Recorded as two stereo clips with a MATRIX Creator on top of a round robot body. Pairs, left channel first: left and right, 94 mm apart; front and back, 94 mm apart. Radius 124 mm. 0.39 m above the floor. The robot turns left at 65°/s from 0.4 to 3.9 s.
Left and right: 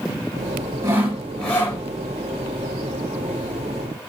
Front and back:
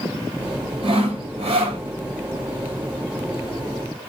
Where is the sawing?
150° right, 1.0 m; by 1.8 s 145° left, 1.0 m.